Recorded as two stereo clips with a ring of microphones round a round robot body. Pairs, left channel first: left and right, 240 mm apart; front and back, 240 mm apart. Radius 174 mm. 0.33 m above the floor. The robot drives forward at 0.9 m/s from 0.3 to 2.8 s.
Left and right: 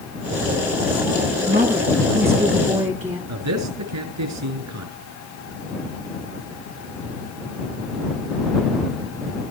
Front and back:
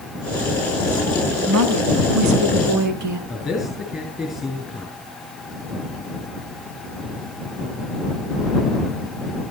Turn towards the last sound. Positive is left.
turn(degrees=-90)